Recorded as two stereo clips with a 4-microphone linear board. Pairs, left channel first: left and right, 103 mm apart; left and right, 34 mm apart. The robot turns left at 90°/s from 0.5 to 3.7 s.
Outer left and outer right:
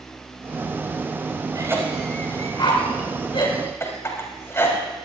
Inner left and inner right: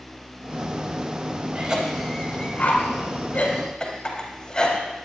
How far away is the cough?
About 3.5 m.